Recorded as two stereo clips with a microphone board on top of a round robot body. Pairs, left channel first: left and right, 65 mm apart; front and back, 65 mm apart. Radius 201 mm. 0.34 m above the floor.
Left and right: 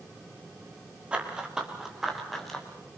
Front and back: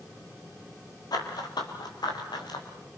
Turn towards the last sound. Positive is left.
turn(degrees=5)